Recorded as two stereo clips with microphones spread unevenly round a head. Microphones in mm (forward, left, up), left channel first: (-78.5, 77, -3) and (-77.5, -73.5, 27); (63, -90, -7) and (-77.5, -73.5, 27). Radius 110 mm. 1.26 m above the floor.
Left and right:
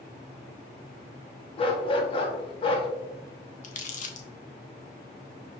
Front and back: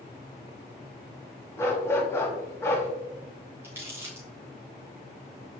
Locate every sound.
1.6 s a dog barking: 80° left, 0.7 m
3.6 s crumpling: 120° left, 0.8 m